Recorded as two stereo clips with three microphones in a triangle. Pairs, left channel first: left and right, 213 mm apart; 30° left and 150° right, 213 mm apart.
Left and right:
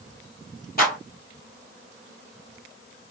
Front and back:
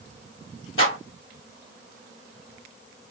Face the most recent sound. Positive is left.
turn(degrees=45)